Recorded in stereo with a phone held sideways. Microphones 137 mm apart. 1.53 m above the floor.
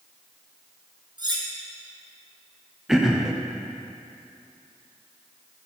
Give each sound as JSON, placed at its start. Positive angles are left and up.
{"t": 1.2, "sound": "cutlery clinking", "side_deg": -35, "distance_m": 1.1}
{"t": 2.9, "sound": "throat clearing", "side_deg": -5, "distance_m": 0.7}